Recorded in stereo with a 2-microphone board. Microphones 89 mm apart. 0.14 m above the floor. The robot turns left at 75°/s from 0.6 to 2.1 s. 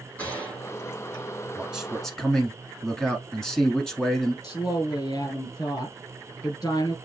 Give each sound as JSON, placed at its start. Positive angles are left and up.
{"t": 0.2, "sound": "a gunshot", "side_deg": 20, "distance_m": 4.0}
{"t": 1.6, "sound": "a man speaking", "azimuth_deg": -150, "distance_m": 1.2}
{"t": 4.4, "sound": "a woman speaking", "side_deg": 50, "distance_m": 2.0}